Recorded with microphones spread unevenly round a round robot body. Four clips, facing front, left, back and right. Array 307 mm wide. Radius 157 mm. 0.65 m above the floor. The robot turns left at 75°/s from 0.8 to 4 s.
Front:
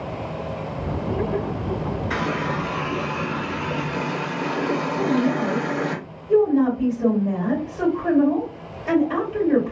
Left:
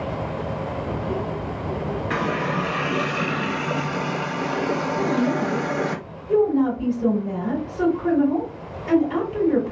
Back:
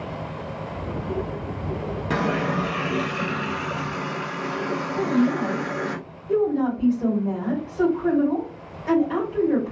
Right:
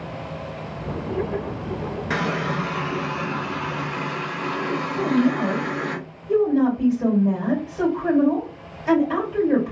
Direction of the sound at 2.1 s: 165° right.